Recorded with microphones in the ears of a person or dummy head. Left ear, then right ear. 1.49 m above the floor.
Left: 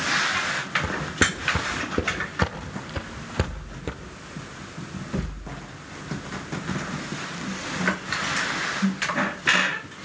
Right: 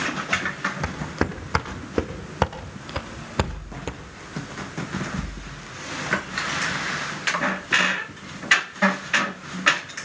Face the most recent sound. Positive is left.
turn(degrees=-30)  # may be behind; listen again after turning